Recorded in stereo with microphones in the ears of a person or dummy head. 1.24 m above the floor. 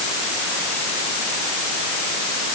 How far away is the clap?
No clap in this recording.